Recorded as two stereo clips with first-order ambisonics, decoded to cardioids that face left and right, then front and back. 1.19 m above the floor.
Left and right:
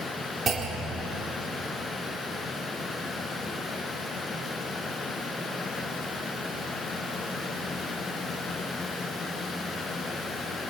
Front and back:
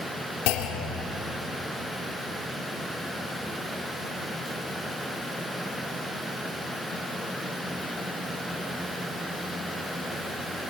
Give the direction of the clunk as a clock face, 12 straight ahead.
1 o'clock.